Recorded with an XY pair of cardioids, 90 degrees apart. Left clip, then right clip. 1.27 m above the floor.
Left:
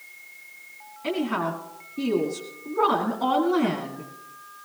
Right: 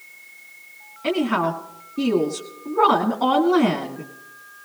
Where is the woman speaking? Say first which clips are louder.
Right 5 dB; 40° right, 2 m.